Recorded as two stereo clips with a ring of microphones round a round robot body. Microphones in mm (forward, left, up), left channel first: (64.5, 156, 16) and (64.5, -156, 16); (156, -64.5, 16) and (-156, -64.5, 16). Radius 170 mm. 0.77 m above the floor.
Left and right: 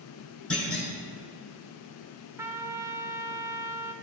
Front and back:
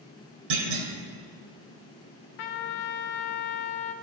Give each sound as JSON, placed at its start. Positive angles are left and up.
{"t": 0.5, "sound": "a clunk", "azimuth_deg": 175, "distance_m": 1.5}
{"t": 2.4, "sound": "a trumpet", "azimuth_deg": -5, "distance_m": 0.6}